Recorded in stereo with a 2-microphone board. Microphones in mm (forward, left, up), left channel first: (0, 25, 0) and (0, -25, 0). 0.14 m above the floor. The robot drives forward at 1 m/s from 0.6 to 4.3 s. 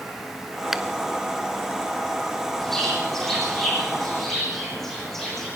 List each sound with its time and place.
0.7 s a finger snap: 5° right (ahead or behind), 1.1 m
2.6 s a bird: 10° left (ahead or behind), 6.5 m; by 5.5 s 5° left (ahead or behind), 8.5 m